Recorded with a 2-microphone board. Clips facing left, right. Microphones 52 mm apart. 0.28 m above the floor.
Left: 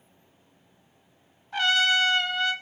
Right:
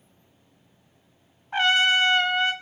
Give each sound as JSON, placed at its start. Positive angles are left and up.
{"t": 1.5, "sound": "a trumpet", "side_deg": -30, "distance_m": 0.5}